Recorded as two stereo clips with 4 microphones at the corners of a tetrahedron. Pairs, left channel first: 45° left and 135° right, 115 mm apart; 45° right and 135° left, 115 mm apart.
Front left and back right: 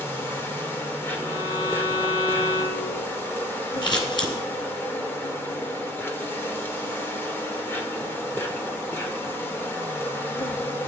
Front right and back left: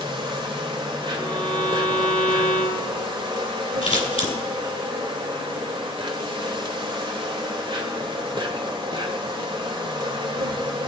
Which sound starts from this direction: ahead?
Scissors, at 3.8 s.